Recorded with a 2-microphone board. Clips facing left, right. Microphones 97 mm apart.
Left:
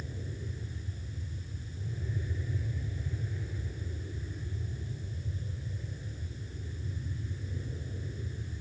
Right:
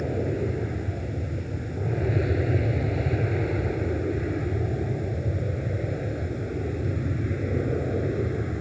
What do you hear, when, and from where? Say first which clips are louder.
0.0 s an aircraft: right 17 dB; 70° right (ahead or behind); by 8.6 s 75° right (ahead or behind)